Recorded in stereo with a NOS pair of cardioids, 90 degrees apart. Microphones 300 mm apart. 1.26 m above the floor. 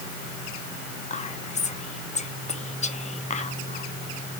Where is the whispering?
25° left, 0.9 m.